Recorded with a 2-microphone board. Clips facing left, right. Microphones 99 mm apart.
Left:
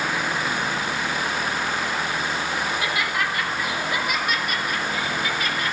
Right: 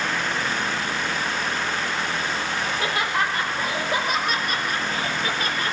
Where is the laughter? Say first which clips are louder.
Even; 35° right (ahead or behind), 5.5 m.